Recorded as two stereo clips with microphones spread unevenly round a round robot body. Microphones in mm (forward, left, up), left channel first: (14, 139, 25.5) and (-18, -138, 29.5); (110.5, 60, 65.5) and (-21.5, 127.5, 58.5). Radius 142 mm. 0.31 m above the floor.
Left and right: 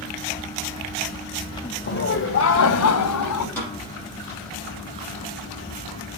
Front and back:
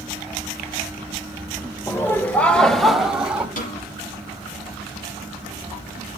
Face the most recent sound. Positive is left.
turn(degrees=0)